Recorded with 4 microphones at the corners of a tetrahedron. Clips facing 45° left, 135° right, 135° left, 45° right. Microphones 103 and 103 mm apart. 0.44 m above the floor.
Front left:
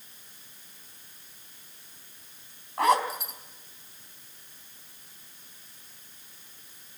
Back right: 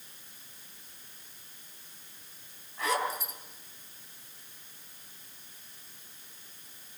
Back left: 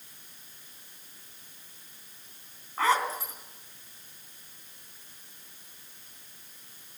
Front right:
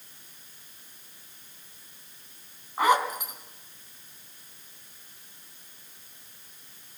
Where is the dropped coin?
I don't hear a dropped coin.